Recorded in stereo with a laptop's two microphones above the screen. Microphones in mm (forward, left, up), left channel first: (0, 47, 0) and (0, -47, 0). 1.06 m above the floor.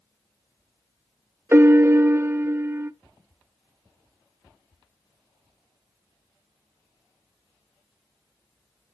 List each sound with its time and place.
1.5 s a piano: 25° right (ahead or behind), 0.6 m